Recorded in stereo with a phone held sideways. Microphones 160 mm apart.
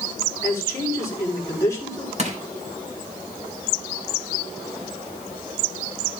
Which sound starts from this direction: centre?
A man speaking, at 0.4 s.